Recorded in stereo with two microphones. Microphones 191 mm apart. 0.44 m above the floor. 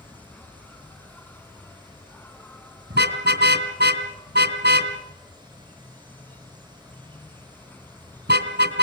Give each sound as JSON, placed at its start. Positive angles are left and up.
{"t": 0.0, "sound": "an insect", "side_deg": 10, "distance_m": 0.8}
{"t": 2.9, "sound": "a car horn", "side_deg": -70, "distance_m": 2.5}